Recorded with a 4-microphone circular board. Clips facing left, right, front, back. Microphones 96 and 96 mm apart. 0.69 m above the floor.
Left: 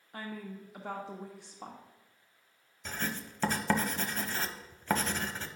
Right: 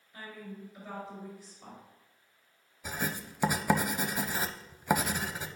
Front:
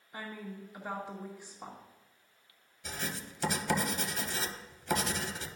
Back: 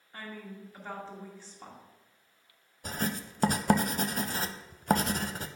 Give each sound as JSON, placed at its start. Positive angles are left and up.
{"t": 0.1, "sound": "a woman speaking", "azimuth_deg": 75, "distance_m": 1.4}
{"t": 2.9, "sound": "writing", "azimuth_deg": -165, "distance_m": 0.6}